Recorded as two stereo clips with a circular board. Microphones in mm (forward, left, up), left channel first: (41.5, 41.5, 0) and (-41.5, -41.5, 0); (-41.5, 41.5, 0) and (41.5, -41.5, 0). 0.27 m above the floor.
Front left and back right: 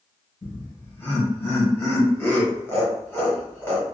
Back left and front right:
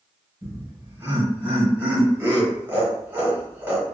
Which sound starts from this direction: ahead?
Laughter, at 0.4 s.